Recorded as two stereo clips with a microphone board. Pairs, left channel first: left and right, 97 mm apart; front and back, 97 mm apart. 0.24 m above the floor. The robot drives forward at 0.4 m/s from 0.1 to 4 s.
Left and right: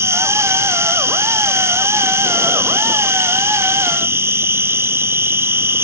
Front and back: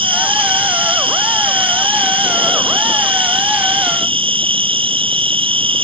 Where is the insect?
155° right.